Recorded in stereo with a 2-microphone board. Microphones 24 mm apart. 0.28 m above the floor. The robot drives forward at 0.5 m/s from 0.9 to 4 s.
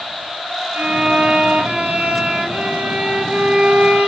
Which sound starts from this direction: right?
A violin, at 0.7 s.